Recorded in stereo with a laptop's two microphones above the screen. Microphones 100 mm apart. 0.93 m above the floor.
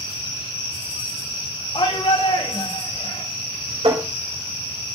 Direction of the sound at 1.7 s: 75° left (ahead or behind).